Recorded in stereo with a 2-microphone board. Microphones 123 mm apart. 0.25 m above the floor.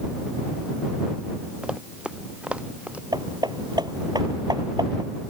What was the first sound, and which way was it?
Running footsteps, 5° right (ahead or behind).